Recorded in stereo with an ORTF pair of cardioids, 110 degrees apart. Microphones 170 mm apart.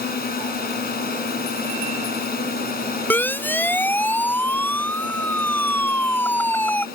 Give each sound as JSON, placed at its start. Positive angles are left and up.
{"t": 0.0, "sound": "a drone", "azimuth_deg": 60}
{"t": 3.1, "sound": "a siren", "azimuth_deg": 10}